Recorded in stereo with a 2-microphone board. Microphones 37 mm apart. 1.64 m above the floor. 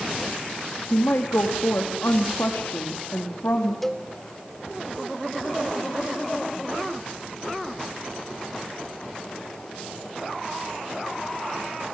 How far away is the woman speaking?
About 3 m.